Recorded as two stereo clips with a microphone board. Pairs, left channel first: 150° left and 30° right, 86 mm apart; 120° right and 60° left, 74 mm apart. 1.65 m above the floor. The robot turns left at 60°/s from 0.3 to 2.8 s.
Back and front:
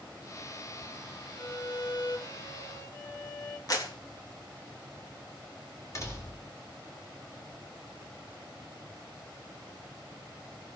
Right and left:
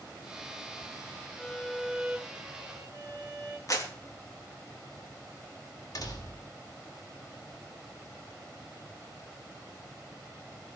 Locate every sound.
1.4 s a violin: 165° right, 2.5 m; by 3.6 s 110° left, 2.5 m
3.7 s a clap: 165° right, 3 m
6.0 s a door slam: 155° right, 3.5 m